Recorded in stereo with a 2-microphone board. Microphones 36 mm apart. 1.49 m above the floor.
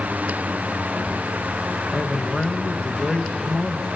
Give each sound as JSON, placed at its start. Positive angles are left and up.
{"t": 1.9, "sound": "a man speaking", "side_deg": 15, "distance_m": 2.0}